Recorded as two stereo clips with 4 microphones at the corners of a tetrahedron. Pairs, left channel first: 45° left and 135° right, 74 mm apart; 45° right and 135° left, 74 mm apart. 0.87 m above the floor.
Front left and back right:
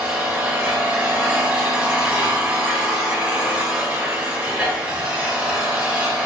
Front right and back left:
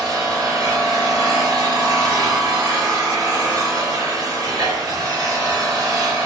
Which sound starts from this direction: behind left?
An engine running, at 0.0 s.